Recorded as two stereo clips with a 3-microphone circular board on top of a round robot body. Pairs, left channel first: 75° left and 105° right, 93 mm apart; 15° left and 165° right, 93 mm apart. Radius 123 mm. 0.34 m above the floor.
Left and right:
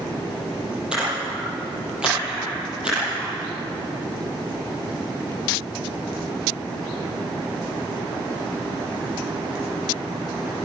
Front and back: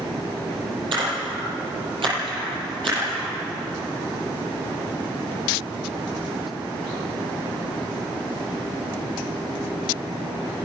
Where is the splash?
175° left, 9 m.